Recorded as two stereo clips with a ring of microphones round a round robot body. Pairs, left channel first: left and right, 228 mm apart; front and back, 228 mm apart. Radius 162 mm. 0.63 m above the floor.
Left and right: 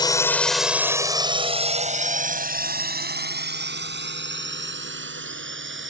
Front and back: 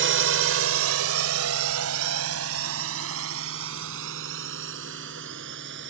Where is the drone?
160° left; by 5.9 s 125° right.